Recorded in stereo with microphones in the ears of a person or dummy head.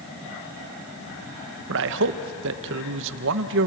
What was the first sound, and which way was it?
A man speaking, 65° right (ahead or behind).